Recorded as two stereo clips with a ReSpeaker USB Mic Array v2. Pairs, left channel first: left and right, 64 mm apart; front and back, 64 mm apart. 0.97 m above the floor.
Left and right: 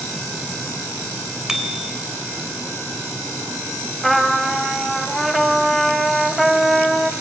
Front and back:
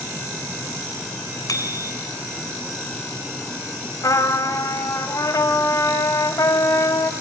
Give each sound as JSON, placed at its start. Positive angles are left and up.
{"t": 1.5, "sound": "a bicycle bell", "azimuth_deg": -10, "distance_m": 3.5}
{"t": 4.0, "sound": "a trumpet", "azimuth_deg": 0, "distance_m": 1.5}